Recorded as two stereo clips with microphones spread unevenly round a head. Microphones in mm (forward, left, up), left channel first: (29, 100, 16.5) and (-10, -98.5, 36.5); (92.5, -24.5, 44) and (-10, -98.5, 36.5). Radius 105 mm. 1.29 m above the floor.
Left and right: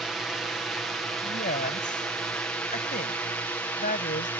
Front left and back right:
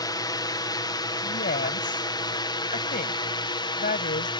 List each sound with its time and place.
0.0 s a drone: 5° right; by 4.4 s 5° left
1.2 s a woman speaking: 25° left